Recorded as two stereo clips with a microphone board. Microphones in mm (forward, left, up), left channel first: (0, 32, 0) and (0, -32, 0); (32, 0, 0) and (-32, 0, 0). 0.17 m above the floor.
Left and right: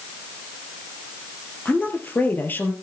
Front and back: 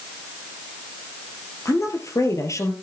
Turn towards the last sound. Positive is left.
turn(degrees=35)